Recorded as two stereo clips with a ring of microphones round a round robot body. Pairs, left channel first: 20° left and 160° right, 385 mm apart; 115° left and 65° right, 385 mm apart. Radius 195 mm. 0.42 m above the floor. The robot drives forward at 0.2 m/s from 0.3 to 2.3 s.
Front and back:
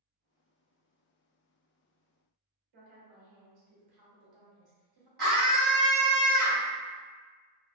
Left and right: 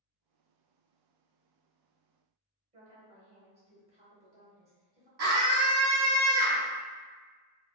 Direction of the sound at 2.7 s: 140° right.